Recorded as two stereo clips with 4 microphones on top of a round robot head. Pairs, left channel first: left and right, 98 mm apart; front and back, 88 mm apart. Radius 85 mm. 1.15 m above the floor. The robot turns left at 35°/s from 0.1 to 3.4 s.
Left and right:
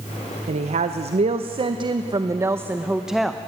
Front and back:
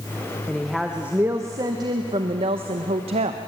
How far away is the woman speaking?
About 0.7 m.